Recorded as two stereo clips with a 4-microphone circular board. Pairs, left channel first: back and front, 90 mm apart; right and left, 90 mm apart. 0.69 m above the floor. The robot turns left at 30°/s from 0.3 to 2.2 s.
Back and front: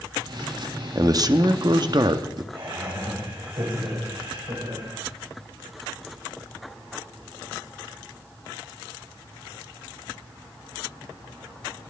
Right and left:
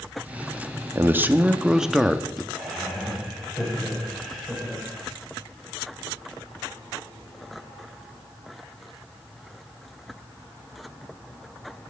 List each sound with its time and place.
0.9 s a man speaking: 35° left, 0.8 m; by 2.4 s 5° right, 0.8 m
2.5 s laughter: 5° right, 3.5 m